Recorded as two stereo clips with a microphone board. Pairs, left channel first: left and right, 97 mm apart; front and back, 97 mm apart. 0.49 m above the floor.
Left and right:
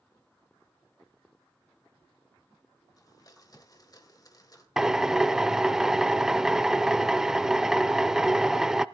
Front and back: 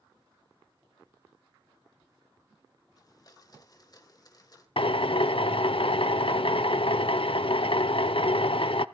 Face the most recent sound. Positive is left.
turn(degrees=-5)